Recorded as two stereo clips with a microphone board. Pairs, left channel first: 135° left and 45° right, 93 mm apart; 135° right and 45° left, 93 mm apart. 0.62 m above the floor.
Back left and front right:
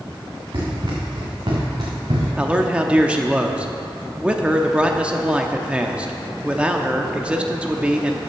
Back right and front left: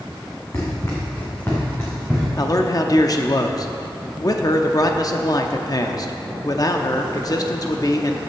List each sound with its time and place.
0.5 s running footsteps: 80° right, 3 m; by 2.3 s 60° right, 3.5 m
2.4 s a man speaking: 115° right, 0.7 m